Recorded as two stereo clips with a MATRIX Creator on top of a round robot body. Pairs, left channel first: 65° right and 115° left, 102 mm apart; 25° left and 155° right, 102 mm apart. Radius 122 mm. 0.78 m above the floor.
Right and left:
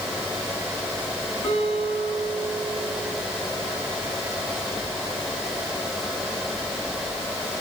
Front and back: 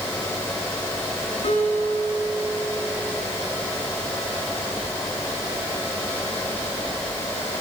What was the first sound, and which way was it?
A guitar, 5° right.